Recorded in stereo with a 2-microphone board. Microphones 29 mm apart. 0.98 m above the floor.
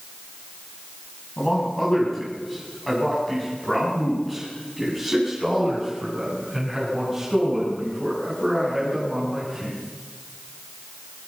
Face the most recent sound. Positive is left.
turn(degrees=-15)  # may be behind; listen again after turning